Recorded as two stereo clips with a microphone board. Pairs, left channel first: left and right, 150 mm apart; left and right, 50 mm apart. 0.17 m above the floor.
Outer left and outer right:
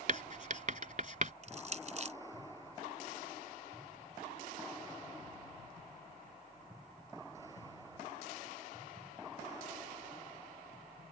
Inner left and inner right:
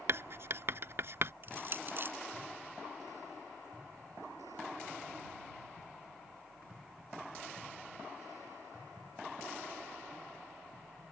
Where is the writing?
55° right (ahead or behind).